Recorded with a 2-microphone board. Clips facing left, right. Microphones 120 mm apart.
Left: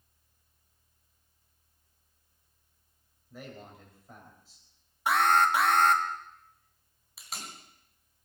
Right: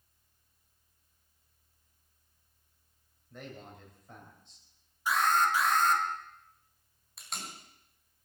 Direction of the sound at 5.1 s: 55° left (ahead or behind).